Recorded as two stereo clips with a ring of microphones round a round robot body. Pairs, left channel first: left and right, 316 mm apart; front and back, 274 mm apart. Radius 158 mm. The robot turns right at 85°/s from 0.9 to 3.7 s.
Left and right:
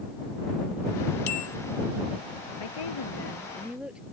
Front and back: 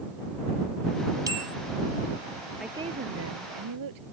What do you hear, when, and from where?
1.3 s a bell: 100° left; by 1.6 s 125° left
2.6 s a woman speaking: 90° left; by 4.0 s 175° right